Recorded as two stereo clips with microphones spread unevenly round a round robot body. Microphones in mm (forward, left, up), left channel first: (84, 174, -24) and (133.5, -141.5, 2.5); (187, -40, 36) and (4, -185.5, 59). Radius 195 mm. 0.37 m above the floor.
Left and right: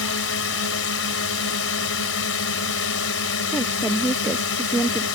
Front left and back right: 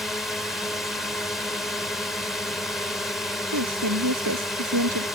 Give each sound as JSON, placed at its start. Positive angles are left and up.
{"t": 0.0, "sound": "a drone", "azimuth_deg": 125}
{"t": 3.5, "sound": "a woman speaking", "azimuth_deg": -175}